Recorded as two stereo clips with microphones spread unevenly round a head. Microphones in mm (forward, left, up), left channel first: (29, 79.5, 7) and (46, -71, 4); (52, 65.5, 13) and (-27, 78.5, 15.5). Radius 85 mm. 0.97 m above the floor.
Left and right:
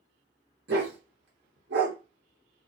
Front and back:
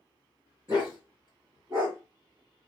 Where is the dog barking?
110° right, 1.2 m.